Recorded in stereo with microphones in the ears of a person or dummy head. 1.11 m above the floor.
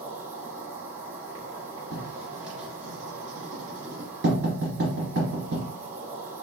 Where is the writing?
65° right (ahead or behind), 2.5 m.